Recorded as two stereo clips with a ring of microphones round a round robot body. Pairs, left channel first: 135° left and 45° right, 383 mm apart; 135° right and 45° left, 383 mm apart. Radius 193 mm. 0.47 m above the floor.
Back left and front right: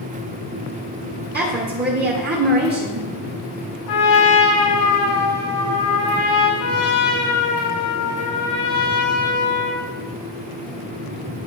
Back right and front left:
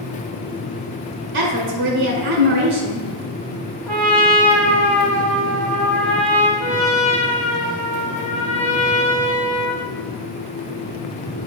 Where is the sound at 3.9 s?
140° left, 2 m.